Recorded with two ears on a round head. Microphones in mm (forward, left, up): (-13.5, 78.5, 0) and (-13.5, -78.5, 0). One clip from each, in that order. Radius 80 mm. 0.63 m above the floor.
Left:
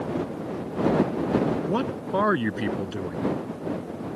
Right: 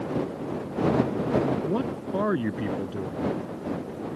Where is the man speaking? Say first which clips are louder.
Left 2 dB; 50° left (ahead or behind).